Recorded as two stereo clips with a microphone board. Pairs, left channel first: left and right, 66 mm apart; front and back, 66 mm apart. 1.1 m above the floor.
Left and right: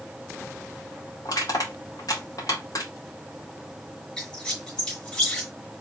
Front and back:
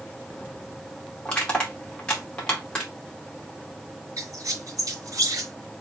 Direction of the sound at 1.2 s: 75° left.